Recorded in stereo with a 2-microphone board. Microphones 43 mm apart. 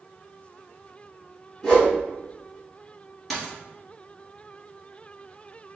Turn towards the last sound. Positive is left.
turn(degrees=0)  # may be behind; listen again after turning